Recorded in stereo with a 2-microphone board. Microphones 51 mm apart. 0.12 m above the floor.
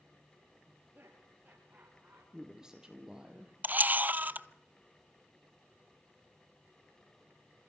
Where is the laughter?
40° right (ahead or behind), 3.5 m.